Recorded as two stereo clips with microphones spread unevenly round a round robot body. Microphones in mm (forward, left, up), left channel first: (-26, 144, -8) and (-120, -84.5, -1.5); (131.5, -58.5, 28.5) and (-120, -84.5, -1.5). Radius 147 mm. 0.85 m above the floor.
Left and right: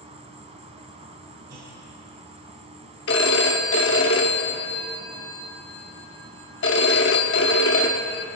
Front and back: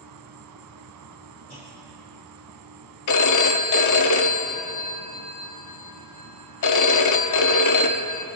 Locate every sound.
0.0 s an insect: 175° right, 1.9 m
1.5 s a clunk: 55° right, 5 m
3.1 s a phone ringing: 15° left, 1.1 m